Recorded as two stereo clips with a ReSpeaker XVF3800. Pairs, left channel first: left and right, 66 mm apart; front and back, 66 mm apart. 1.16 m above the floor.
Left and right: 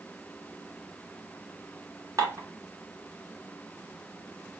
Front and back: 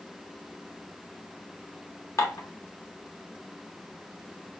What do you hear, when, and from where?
2.2 s dishes clattering: 45° right, 1.6 m